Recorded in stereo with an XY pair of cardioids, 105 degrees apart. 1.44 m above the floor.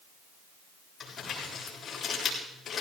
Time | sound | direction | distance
1.0 | crumpling | 50° left | 7.5 m